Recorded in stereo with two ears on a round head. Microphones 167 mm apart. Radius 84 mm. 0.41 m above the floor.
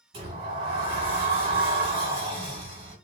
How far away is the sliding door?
About 1.6 m.